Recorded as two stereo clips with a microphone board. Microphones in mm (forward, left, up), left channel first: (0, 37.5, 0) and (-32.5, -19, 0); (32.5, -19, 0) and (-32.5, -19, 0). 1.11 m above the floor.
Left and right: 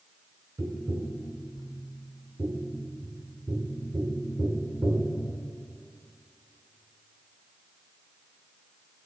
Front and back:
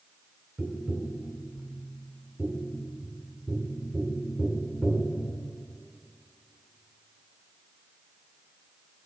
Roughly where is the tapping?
Behind right.